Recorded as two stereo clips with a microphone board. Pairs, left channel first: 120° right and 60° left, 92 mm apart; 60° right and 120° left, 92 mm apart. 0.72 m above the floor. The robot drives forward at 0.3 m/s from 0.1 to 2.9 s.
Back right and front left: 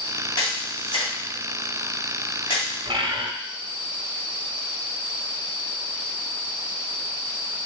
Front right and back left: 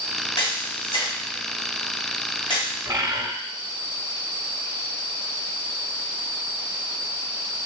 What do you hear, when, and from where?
0.4 s a camera shutter: 85° right, 2.5 m; by 2.7 s 100° right, 2.5 m
2.9 s a bird: 75° left, 0.7 m